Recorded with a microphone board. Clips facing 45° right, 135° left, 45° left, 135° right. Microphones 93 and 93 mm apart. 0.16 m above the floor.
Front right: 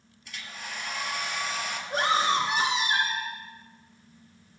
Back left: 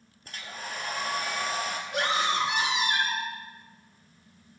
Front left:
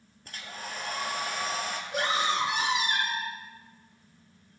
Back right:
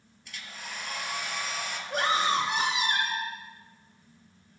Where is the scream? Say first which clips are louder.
Front right 4 dB, back right 3 dB; 95° right, 6.5 m.